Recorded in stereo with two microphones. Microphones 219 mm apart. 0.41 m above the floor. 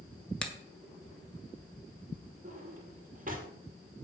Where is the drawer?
40° right (ahead or behind), 3 m.